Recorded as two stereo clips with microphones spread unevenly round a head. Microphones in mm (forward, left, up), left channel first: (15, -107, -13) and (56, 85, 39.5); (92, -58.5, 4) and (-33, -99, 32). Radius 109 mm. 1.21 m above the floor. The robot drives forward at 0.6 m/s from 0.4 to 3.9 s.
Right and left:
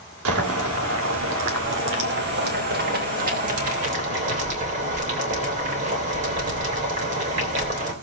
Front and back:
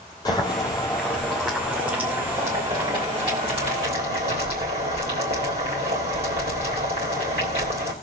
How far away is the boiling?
About 2 m.